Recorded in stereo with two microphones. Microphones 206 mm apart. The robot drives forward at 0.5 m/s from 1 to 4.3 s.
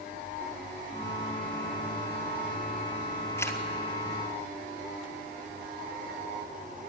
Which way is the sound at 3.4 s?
15° left (ahead or behind).